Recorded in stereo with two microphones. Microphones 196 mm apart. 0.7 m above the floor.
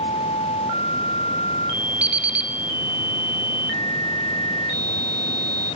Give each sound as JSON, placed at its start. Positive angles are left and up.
{"t": 2.0, "sound": "an alarm clock", "side_deg": -65, "distance_m": 0.7}